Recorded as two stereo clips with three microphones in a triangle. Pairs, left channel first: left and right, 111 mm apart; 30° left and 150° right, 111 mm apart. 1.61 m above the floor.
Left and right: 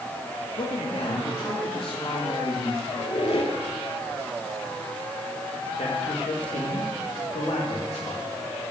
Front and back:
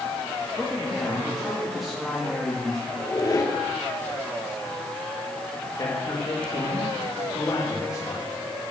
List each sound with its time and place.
0.6 s a man speaking: 120° left, 2.5 m
2.9 s a squeak: 80° left, 2.5 m
5.8 s a man speaking: 85° left, 2.5 m